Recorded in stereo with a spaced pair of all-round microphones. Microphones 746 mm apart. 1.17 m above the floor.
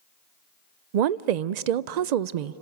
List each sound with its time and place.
0.9 s a woman speaking: 70° right (ahead or behind), 0.5 m